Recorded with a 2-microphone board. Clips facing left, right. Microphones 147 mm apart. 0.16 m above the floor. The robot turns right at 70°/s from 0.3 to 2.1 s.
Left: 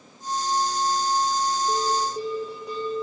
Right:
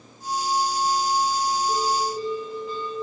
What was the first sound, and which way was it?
A bell, 75° left (ahead or behind).